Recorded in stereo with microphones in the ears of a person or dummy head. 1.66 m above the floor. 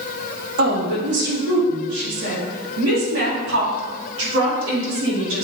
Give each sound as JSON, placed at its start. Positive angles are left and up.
{"t": 0.6, "sound": "a woman speaking", "side_deg": -60, "distance_m": 3.0}